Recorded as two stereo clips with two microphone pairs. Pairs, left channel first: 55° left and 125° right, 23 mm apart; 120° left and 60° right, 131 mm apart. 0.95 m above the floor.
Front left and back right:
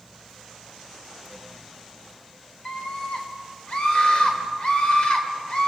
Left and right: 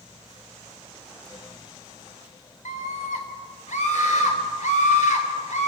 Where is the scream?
100° left, 3.5 m.